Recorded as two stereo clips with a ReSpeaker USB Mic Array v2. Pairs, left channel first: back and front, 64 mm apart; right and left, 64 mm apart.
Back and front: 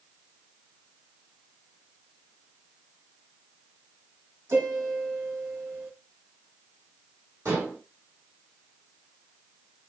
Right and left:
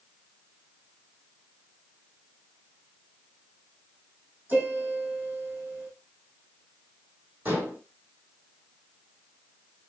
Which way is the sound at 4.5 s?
35° left.